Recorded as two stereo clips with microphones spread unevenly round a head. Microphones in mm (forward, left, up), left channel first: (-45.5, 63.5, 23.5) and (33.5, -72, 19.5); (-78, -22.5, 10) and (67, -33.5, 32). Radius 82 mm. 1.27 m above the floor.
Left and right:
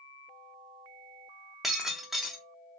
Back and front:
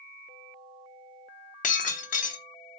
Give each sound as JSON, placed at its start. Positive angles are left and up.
{"t": 1.6, "sound": "breaking glass", "azimuth_deg": -150, "distance_m": 0.9}